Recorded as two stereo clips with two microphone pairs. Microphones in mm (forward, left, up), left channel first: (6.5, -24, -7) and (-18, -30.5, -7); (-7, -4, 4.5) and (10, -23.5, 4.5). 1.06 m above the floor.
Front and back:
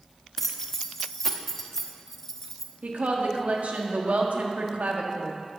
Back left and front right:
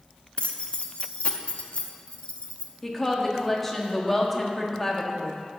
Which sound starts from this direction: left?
Keys jangling, at 0.4 s.